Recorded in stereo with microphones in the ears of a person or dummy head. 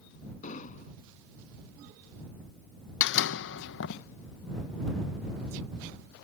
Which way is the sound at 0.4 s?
40° left (ahead or behind).